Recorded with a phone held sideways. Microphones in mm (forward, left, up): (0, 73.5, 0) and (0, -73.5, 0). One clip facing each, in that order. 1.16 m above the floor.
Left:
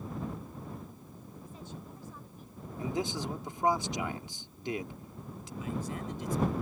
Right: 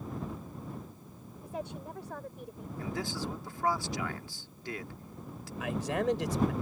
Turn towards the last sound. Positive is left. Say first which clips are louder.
# right 6 dB
turn(degrees=-75)  # may be behind; listen again after turning